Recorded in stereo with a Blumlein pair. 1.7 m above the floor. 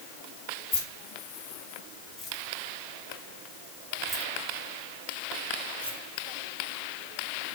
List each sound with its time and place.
0.7 s keys jangling: 40° left, 2.5 m; by 6.0 s 80° right, 2 m